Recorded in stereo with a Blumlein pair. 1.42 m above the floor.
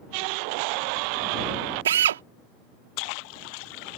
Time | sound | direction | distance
1.9 | a drill | 65° right | ?